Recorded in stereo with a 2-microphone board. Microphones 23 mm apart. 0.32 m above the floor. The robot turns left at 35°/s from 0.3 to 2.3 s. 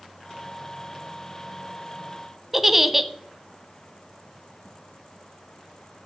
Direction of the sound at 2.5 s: 5° right (ahead or behind).